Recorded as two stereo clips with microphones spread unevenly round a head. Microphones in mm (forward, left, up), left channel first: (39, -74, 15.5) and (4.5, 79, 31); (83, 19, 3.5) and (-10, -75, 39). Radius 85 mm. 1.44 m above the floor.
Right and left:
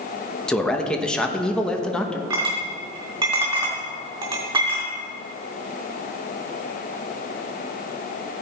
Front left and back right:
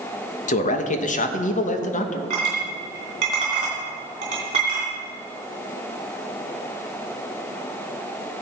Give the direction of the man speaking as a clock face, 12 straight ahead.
12 o'clock.